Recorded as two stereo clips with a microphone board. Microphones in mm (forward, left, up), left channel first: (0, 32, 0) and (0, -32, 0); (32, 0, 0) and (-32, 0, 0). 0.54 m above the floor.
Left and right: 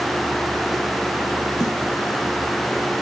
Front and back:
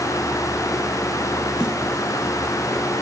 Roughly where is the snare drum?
Left.